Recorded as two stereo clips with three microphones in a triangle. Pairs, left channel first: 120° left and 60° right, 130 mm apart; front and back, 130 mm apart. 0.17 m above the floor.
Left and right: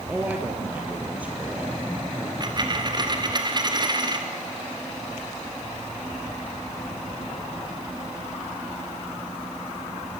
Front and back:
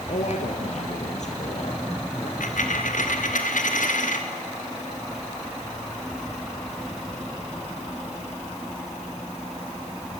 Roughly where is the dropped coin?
Ahead.